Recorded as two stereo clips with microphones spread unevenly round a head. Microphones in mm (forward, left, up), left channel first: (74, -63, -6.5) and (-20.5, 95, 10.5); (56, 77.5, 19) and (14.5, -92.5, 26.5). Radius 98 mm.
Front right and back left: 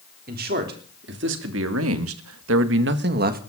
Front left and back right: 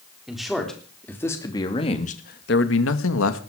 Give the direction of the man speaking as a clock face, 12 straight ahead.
6 o'clock.